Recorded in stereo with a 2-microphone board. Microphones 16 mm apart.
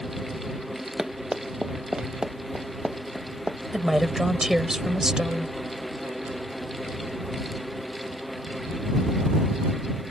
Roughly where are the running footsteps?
Right.